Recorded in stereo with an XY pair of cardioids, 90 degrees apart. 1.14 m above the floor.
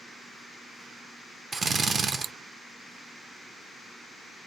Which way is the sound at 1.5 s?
50° right.